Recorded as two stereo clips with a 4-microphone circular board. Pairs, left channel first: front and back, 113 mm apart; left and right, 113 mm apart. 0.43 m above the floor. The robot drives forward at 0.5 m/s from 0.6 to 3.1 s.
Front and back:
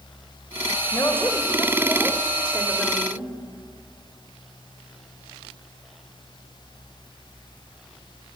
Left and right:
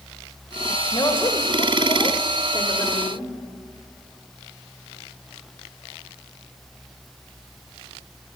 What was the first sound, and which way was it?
A woman speaking, 55° left.